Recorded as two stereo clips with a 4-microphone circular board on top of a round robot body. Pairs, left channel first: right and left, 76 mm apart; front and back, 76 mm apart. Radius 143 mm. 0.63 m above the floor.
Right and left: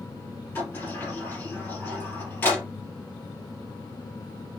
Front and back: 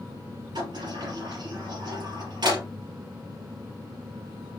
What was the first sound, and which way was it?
A sliding door, 155° right.